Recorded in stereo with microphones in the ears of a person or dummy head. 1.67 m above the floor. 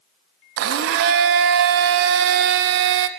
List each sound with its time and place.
0.6 s a blender: 65° right (ahead or behind), 0.6 m